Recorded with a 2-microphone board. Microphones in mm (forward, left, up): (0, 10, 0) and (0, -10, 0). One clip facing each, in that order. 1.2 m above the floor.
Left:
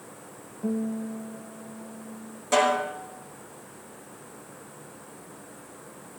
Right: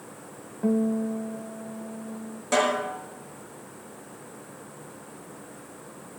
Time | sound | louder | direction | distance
0.6 | a guitar | right 5 dB | 40° right (ahead or behind) | 0.5 m
2.5 | a snare drum | left 1 dB | 5° right (ahead or behind) | 5 m